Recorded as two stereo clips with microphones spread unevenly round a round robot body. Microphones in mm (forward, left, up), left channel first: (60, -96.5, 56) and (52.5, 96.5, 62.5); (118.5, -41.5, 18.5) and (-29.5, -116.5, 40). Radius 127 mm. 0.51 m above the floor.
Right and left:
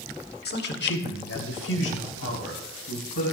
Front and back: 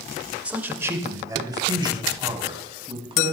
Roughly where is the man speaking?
Ahead right.